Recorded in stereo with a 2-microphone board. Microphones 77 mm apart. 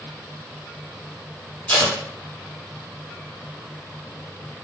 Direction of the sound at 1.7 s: 20° left (ahead or behind).